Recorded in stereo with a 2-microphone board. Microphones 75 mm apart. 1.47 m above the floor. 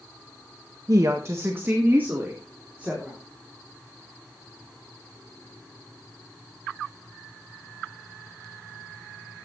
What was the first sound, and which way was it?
A woman speaking, 50° right (ahead or behind).